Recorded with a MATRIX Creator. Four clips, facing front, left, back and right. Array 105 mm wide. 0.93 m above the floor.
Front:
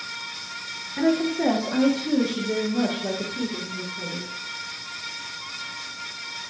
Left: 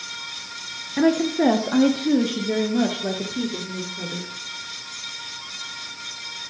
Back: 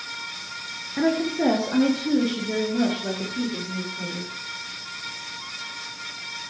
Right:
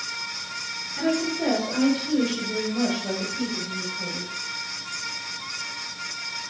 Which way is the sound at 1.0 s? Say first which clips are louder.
Left 6 dB, front 1 dB; 105° left.